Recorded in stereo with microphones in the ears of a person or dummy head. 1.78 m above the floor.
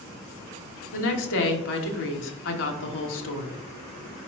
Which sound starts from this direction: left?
A woman speaking, at 0.9 s.